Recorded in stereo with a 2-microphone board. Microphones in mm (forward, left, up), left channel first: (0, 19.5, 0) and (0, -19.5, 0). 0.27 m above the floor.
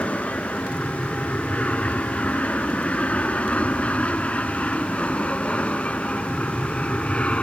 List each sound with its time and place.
0.0 s an aircraft: 35° left (ahead or behind); by 7.4 s 30° left (ahead or behind)